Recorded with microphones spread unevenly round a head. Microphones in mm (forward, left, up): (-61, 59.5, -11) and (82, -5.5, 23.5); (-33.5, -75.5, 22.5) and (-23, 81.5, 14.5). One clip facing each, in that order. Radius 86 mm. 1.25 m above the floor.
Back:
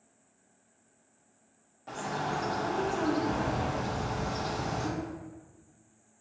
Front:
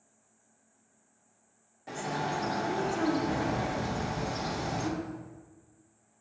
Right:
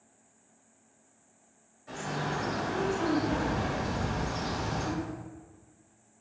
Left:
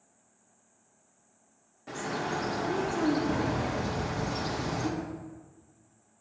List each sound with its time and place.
1.9 s a bird: 55° left, 0.7 m